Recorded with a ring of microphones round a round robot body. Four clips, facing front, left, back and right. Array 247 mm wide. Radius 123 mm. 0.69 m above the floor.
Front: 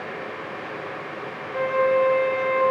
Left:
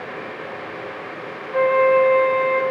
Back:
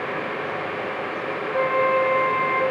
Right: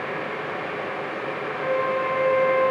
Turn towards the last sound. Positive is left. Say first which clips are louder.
# left 10 dB, even
turn(degrees=105)